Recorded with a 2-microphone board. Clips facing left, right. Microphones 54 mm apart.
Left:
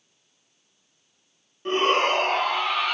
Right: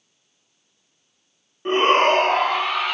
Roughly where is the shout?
Right.